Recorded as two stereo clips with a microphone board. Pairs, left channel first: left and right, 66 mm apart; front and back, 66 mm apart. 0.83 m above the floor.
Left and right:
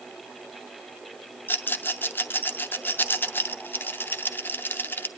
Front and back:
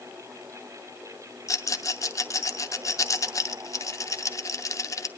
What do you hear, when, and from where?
1.5 s a rattle: 30° left, 0.7 m